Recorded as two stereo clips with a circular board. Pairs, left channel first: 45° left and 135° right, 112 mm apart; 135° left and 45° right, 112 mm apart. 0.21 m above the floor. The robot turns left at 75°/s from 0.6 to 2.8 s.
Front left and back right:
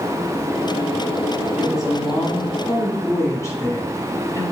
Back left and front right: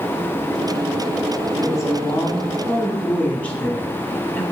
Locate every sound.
1.6 s a woman speaking: 160° left, 1.1 m; by 4.4 s 70° left, 1.1 m